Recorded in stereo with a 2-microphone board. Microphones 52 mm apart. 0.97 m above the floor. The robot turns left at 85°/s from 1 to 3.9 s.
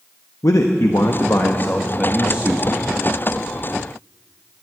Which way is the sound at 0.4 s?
95° left.